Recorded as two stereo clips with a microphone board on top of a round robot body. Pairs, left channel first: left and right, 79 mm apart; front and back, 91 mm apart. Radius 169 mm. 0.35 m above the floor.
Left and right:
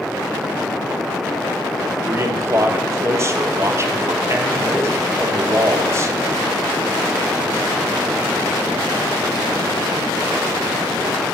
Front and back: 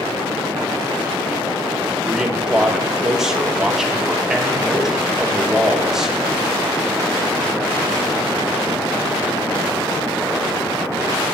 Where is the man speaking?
100° right, 1.2 m.